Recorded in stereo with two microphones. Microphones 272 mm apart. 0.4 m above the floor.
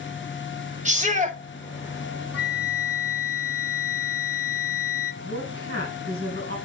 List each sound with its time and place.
0.8 s a shout: 25° right (ahead or behind), 1.5 m
2.3 s a flute: 55° left (ahead or behind), 0.6 m
5.2 s a woman speaking: 50° right (ahead or behind), 3 m